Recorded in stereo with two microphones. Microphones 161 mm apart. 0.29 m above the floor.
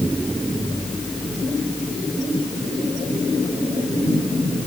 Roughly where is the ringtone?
No ringtone in this recording.